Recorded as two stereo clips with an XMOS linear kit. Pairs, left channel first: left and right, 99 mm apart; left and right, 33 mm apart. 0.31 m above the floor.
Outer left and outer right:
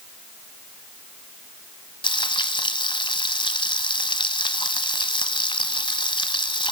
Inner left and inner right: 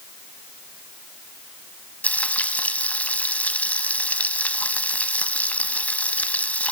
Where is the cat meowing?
No cat meowing in this recording.